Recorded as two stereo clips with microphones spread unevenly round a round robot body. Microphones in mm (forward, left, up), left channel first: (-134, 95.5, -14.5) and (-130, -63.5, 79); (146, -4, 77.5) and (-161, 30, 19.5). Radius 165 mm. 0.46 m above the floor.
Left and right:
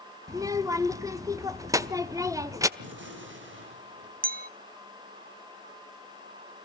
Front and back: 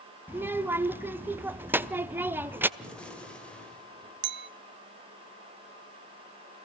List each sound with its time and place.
0.3 s a child speaking: 140° left, 0.8 m
2.8 s a gunshot: 100° right, 2.5 m
4.2 s a clink: 145° right, 0.6 m